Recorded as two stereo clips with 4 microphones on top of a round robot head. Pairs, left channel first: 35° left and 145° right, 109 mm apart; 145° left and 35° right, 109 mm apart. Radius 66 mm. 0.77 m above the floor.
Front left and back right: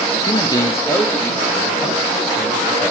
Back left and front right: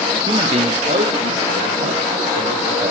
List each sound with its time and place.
0.3 s a man speaking: straight ahead, 1.0 m; by 2.9 s 55° right, 3 m